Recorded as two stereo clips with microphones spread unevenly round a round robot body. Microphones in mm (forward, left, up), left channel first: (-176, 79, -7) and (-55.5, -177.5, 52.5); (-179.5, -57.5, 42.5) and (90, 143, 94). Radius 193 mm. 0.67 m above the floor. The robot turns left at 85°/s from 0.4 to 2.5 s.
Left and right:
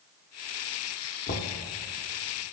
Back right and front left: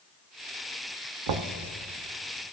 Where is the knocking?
65° left, 0.8 m; by 1.6 s 40° left, 0.8 m.